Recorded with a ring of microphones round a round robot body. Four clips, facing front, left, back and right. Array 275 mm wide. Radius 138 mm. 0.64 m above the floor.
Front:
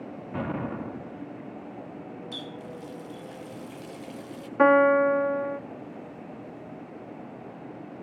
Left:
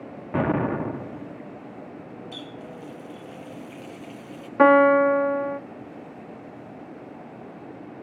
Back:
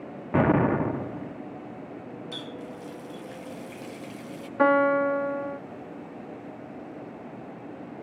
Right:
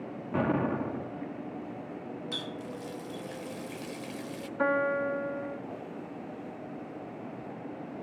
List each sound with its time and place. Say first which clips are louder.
0.3 s an explosion: left 5 dB, back 11 dB; 155° left, 0.5 m
2.3 s a running tap: even, back 1 dB; 90° right, 2 m
4.6 s a piano: left 13 dB, front 2 dB; 80° left, 0.7 m